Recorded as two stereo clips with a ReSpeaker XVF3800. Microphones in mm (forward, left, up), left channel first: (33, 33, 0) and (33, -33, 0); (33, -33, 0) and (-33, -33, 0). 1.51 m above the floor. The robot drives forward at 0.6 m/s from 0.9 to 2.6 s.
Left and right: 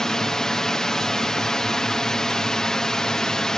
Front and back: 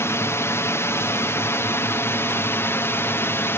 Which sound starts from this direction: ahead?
A drone, at 0.0 s.